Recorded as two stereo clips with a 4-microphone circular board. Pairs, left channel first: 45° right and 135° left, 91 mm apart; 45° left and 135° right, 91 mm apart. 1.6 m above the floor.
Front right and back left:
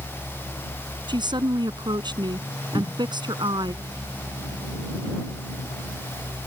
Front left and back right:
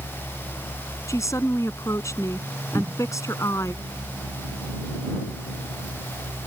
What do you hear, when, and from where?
1.1 s a woman speaking: 100° left
2.7 s a cupboard door: 60° right